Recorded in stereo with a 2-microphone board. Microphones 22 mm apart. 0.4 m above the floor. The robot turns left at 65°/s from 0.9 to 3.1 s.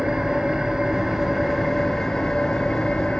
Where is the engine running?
135° right, 4.5 m; by 3.2 s 80° left, 4.5 m.